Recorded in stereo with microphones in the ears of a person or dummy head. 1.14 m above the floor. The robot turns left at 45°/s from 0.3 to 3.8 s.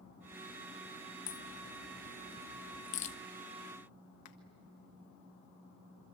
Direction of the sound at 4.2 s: 55° left (ahead or behind).